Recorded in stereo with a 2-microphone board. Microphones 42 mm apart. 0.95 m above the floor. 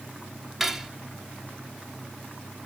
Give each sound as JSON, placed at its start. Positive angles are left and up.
{"t": 0.6, "sound": "cutlery clinking", "side_deg": -5, "distance_m": 1.1}